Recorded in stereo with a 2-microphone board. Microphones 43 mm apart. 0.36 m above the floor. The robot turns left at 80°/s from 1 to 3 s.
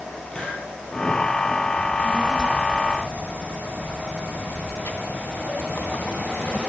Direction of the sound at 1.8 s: 145° right.